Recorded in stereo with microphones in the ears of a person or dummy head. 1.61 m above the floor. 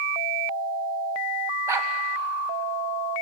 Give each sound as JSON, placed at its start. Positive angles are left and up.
{"t": 1.7, "sound": "a dog barking", "side_deg": -10, "distance_m": 2.5}